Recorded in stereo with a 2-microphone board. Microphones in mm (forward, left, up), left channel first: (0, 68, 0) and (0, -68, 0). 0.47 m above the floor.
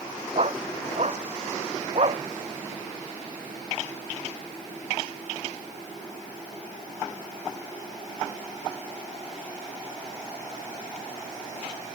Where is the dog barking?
50° right (ahead or behind).